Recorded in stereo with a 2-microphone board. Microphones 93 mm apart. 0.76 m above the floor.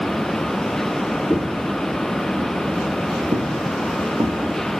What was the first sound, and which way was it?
Footsteps, 10° left (ahead or behind).